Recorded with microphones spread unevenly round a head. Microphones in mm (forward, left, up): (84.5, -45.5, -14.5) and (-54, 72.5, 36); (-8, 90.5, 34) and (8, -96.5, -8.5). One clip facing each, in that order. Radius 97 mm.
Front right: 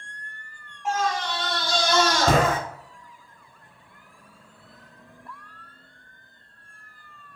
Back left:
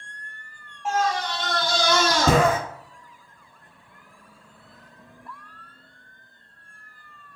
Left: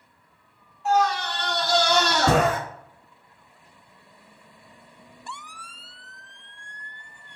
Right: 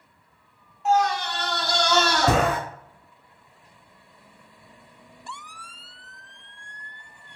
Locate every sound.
0.8 s a scream: 155° right, 2 m; by 2.6 s 145° left, 1.1 m